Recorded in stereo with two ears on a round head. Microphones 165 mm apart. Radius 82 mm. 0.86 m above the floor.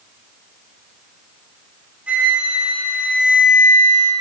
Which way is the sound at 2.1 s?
5° right (ahead or behind).